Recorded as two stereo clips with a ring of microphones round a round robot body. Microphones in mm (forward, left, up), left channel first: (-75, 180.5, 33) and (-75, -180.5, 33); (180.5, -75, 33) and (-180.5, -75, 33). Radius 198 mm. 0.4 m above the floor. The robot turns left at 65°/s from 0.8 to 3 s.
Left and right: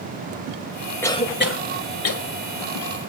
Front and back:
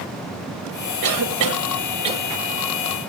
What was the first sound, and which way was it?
A cough, 175° left.